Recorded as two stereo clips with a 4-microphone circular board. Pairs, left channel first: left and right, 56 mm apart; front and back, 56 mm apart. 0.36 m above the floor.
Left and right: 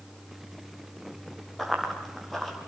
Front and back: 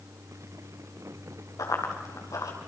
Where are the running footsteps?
Straight ahead, 5.5 m.